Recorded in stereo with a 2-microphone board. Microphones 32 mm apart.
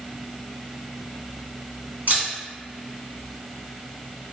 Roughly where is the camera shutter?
Right.